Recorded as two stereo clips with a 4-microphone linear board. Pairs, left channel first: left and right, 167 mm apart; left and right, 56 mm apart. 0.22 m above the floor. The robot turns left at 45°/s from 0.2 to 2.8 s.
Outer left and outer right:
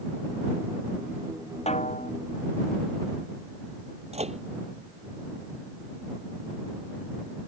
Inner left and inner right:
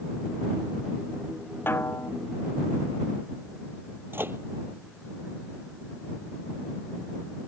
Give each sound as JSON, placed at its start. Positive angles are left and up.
{"t": 1.7, "sound": "a snare drum", "side_deg": 40}
{"t": 4.1, "sound": "a microwave", "side_deg": -45}